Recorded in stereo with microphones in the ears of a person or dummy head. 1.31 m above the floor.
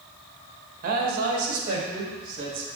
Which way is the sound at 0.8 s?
50° right (ahead or behind).